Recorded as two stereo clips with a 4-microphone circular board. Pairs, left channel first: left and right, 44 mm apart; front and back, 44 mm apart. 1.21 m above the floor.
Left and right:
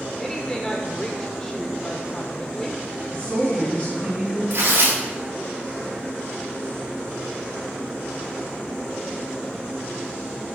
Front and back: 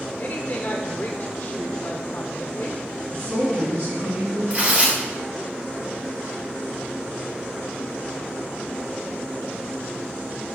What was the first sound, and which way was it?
A woman speaking, 20° left.